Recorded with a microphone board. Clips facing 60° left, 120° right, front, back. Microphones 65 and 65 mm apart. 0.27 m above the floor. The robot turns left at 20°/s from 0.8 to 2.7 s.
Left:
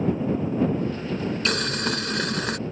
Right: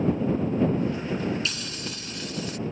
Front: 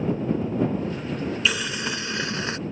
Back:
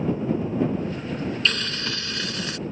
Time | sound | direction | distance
1.4 | boiling | 80° left | ?